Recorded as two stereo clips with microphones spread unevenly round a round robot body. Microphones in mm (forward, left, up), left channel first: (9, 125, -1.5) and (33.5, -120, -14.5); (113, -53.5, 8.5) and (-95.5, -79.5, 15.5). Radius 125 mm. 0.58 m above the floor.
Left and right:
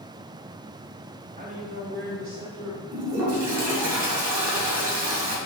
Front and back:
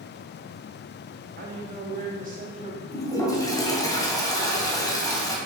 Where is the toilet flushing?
65° right, 2.5 m.